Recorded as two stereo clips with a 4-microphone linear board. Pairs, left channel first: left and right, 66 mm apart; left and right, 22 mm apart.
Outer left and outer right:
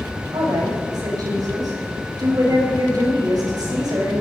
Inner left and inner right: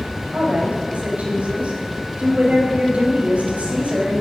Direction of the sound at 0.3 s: 80° right.